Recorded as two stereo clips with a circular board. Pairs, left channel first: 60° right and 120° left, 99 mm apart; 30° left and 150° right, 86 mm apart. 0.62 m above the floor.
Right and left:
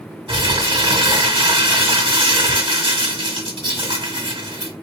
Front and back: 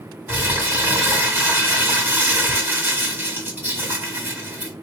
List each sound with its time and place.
0.3 s crumpling: 145° left, 1.6 m